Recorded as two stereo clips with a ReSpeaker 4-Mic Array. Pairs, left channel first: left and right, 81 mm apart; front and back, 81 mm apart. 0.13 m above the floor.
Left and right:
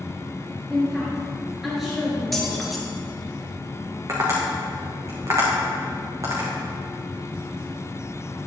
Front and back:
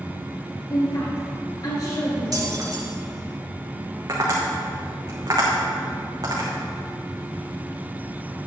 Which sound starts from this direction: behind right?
Tapping, at 4.1 s.